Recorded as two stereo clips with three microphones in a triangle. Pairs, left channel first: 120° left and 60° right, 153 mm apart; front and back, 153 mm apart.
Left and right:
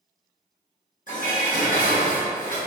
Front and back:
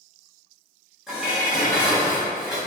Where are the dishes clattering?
95° left, 0.9 m.